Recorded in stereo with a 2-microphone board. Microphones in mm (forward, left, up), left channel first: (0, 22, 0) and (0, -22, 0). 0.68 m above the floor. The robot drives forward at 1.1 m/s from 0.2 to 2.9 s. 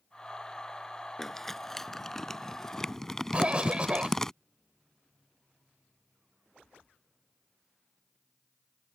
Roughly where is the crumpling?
Centre.